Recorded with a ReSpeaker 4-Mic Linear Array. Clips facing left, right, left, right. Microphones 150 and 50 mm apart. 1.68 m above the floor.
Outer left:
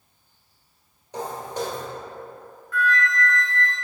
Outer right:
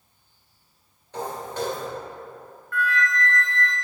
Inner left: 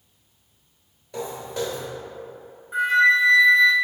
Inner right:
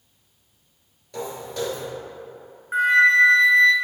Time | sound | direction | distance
1.1 | footsteps | 15° left (ahead or behind) | 1.9 m
2.7 | a flute | 55° right (ahead or behind) | 0.9 m